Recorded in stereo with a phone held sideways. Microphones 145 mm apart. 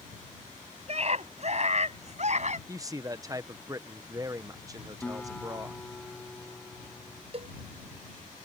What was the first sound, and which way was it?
A scream, 45° right (ahead or behind).